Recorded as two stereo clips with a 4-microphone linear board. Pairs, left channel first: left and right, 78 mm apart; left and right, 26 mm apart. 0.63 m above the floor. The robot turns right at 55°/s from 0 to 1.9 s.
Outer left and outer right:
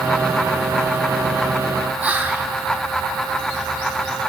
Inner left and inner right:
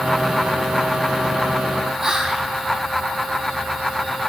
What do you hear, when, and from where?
2.0 s whispering: 20° right (ahead or behind), 0.6 m